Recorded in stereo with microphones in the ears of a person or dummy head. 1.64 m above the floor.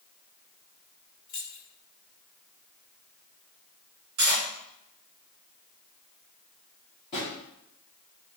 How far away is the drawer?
About 0.8 m.